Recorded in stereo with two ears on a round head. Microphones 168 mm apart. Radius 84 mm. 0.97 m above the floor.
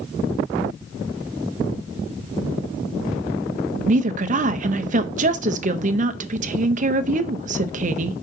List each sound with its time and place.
3.9 s a woman speaking: 40° right (ahead or behind), 0.6 m